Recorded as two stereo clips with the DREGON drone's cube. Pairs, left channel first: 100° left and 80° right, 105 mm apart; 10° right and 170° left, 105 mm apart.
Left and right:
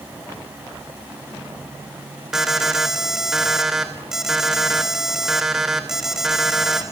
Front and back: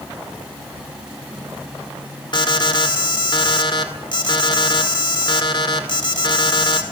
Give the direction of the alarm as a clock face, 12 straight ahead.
12 o'clock.